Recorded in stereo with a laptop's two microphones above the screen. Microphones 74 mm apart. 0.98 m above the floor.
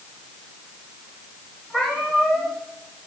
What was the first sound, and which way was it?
A cat meowing, 15° left (ahead or behind).